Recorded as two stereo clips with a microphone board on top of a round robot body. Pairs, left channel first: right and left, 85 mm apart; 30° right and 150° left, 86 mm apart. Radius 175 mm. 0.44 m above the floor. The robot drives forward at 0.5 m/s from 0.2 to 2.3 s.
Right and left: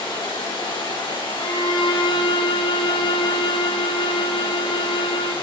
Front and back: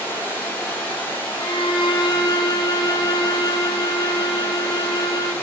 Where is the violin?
55° right, 1.4 m; by 5.3 s 75° right, 1.2 m.